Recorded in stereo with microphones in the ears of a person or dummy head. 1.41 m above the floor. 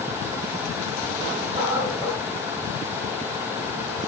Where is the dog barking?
20° right (ahead or behind), 3.5 m.